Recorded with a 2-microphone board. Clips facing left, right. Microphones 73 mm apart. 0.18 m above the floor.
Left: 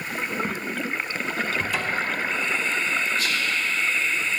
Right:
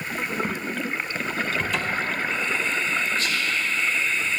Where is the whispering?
10° left (ahead or behind), 2.5 m.